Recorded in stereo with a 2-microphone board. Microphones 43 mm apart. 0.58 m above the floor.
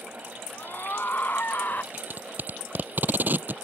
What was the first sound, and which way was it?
A scream, 55° left (ahead or behind).